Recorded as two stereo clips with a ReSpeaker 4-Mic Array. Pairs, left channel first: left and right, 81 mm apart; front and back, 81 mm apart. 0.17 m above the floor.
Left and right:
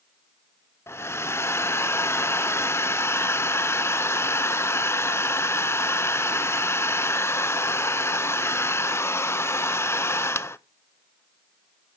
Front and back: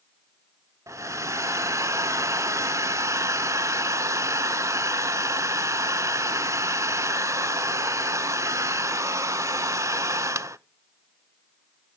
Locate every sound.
0.9 s a hair dryer: 140° left, 0.5 m